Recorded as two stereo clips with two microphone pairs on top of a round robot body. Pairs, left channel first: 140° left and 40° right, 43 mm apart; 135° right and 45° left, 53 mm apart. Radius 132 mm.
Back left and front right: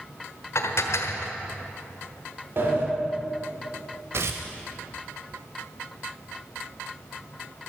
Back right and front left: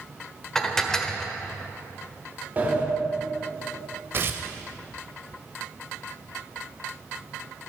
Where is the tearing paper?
5° right, 0.6 m.